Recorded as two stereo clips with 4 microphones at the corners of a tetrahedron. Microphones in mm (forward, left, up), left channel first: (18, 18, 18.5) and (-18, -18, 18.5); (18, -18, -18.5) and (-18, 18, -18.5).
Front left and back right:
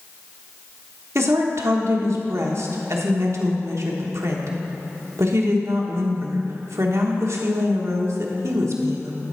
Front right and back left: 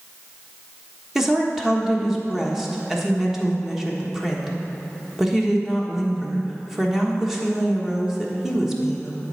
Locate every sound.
1.1 s a woman speaking: 140° right, 1.3 m